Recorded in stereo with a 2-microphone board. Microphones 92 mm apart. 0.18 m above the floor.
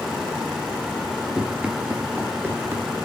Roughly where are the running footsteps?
Centre.